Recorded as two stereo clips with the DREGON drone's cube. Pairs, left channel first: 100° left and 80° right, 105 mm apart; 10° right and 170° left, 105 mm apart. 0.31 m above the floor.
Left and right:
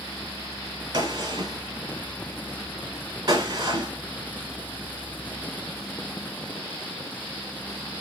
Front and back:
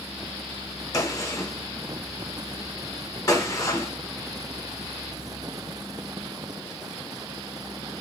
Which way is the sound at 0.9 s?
60° right.